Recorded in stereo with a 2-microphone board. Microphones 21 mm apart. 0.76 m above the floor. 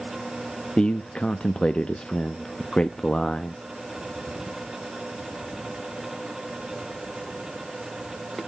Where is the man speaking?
50° left (ahead or behind), 0.5 m.